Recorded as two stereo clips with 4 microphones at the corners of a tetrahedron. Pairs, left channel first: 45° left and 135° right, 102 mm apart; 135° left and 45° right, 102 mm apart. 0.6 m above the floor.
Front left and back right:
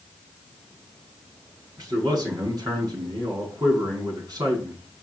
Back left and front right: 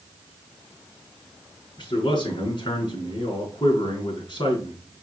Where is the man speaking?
175° left, 5.5 m.